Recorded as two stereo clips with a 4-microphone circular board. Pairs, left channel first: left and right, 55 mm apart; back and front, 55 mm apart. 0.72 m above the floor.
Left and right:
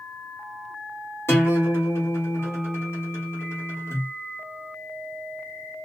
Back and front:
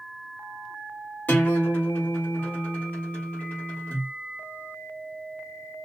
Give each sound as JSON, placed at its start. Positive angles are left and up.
{"t": 1.3, "sound": "a guitar", "azimuth_deg": 125, "distance_m": 1.4}